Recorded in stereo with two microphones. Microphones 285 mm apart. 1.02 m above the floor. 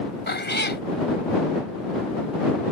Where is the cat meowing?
35° left (ahead or behind).